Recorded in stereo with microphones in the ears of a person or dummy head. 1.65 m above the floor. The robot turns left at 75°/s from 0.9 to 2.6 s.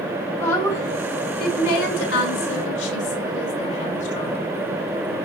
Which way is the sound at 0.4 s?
170° left.